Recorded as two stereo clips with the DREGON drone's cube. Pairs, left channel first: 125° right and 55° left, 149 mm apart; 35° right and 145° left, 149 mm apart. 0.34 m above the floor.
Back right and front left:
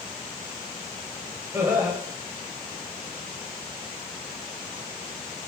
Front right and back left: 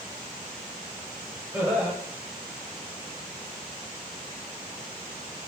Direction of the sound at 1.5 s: 95° left.